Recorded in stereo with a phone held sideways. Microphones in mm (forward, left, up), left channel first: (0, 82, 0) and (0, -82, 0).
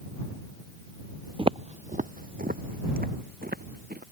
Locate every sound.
1.4 s footsteps: 30° right (ahead or behind); by 4.0 s 70° right (ahead or behind)